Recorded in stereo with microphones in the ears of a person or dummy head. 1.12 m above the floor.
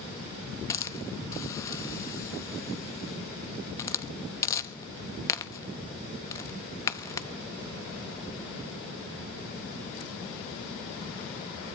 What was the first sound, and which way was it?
A hiss, 20° left (ahead or behind).